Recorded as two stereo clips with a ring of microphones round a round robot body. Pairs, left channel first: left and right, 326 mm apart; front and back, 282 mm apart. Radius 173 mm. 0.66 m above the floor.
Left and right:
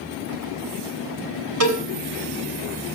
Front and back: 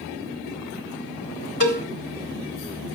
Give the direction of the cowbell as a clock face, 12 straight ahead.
2 o'clock.